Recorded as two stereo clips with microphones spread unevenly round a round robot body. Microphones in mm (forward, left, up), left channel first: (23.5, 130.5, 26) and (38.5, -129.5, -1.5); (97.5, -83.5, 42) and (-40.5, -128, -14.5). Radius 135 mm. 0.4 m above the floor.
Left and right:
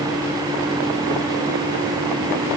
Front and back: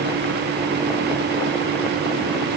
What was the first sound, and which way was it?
Only background noise.